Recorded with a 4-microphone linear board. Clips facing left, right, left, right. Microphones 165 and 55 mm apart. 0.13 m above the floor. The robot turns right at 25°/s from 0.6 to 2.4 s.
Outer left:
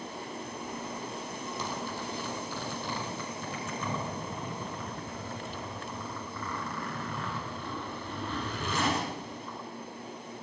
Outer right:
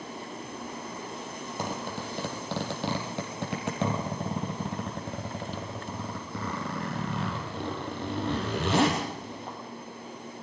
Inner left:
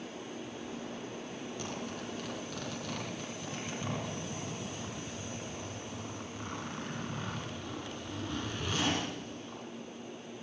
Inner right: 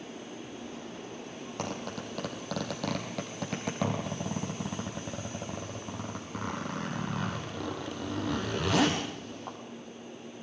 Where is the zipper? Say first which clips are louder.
Outer right 4 dB, inner right 6 dB; 55° right (ahead or behind), 4.5 m; by 9.6 s 70° right (ahead or behind), 4.5 m.